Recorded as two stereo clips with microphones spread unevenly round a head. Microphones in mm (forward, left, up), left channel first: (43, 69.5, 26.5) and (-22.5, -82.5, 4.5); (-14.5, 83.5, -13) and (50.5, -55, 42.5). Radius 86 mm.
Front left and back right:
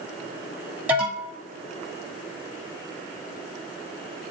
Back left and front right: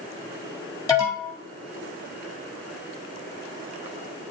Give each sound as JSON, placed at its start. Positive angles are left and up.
{"t": 0.9, "sound": "an alarm", "azimuth_deg": 170, "distance_m": 2.5}